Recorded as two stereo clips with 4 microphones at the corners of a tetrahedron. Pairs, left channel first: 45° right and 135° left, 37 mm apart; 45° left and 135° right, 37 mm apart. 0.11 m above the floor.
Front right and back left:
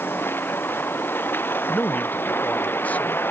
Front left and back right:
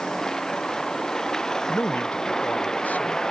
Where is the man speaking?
Straight ahead.